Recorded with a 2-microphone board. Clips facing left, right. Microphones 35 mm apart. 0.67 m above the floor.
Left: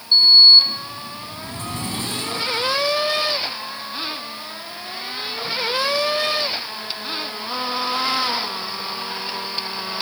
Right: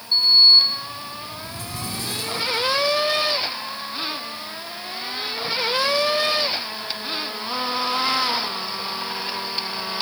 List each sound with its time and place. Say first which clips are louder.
0.1 s a sliding door: left 3 dB; 45° left (ahead or behind), 4.5 m